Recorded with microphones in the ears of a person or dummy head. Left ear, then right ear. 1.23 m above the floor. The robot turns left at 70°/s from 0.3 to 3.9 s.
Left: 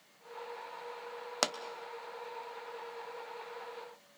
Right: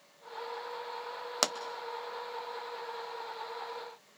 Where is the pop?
Centre (ahead or behind), 0.5 m; by 1.6 s 5° left (ahead or behind), 0.5 m.